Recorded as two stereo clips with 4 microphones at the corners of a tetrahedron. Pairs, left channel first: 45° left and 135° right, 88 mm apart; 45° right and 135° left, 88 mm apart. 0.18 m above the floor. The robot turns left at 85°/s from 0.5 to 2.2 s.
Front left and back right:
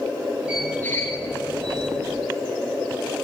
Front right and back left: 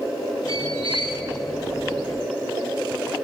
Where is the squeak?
145° left, 3.5 m; by 1.2 s 90° left, 3.5 m.